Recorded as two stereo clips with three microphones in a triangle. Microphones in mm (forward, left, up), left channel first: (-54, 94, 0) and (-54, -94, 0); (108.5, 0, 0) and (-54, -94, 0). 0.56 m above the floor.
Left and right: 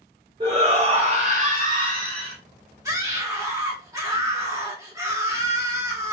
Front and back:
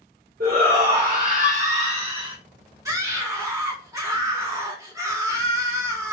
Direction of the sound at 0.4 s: 150° right.